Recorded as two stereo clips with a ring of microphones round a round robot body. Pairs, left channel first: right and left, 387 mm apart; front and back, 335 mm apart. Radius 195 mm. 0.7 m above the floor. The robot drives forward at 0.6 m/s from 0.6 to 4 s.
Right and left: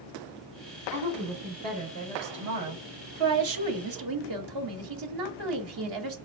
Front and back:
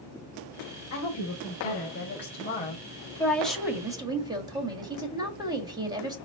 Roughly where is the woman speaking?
Ahead left.